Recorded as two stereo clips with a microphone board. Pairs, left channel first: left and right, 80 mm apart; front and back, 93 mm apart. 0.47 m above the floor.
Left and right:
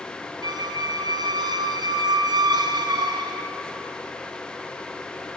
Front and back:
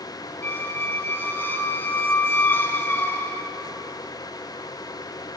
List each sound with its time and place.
0.4 s a squeak: 65° right, 1.5 m